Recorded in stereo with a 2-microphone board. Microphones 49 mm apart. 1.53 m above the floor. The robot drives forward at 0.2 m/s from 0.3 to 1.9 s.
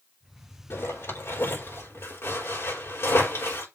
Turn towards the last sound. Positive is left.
turn(degrees=60)  # may be behind; listen again after turning